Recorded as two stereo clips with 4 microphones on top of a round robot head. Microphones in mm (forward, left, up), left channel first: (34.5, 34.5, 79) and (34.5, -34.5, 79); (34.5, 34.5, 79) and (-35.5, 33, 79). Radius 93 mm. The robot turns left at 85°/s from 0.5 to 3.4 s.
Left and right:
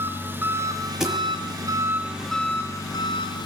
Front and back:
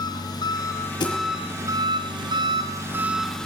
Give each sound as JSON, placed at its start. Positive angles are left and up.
{"t": 0.0, "sound": "an engine running", "azimuth_deg": -30, "distance_m": 3.0}
{"t": 1.0, "sound": "a thud", "azimuth_deg": -5, "distance_m": 6.0}